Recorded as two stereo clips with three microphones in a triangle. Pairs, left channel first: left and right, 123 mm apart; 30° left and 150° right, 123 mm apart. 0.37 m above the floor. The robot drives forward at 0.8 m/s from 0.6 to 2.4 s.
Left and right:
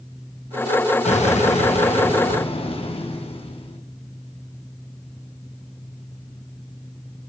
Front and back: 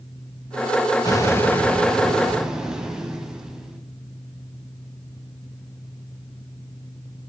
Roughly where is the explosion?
Left.